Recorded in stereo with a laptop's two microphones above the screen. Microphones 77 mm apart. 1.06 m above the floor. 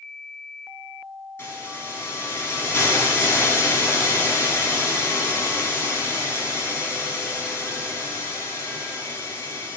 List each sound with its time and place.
1.4 s a hiss: 35° left (ahead or behind), 4 m